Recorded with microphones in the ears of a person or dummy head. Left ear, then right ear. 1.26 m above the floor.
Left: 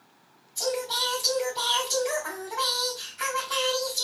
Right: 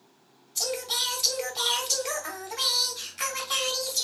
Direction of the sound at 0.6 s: 45° right (ahead or behind).